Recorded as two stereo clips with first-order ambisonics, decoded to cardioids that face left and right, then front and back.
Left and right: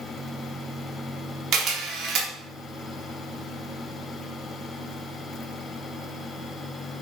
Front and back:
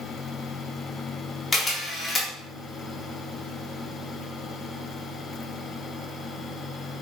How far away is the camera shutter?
About 1.1 m.